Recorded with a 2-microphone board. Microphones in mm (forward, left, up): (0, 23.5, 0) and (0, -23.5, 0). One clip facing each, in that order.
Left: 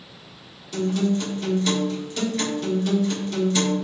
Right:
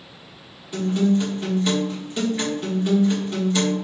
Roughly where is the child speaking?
No child speaking in this recording.